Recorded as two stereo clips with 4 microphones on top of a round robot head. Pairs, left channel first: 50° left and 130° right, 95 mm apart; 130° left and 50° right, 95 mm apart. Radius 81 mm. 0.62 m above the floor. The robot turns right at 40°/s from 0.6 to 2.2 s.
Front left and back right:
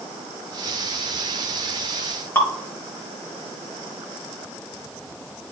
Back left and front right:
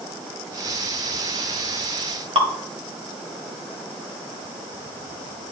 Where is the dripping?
15° right, 1.7 m.